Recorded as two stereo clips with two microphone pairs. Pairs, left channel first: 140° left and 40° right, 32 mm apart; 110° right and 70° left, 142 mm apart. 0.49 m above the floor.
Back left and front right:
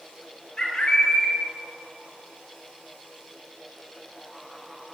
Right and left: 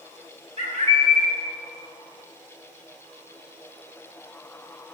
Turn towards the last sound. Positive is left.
turn(degrees=75)